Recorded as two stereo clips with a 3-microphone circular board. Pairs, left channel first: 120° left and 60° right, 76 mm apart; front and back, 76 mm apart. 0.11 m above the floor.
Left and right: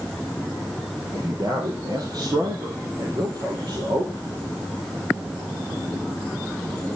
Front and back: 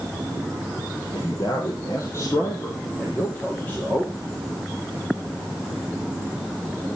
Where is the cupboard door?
No cupboard door in this recording.